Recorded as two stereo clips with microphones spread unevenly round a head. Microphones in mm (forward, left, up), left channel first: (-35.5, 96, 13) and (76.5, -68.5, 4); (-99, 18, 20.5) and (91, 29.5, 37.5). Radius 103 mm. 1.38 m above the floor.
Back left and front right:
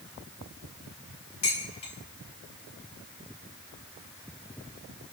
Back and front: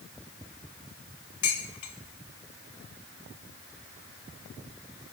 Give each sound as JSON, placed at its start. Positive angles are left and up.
{"t": 1.4, "sound": "dishes clattering", "azimuth_deg": -175, "distance_m": 3.5}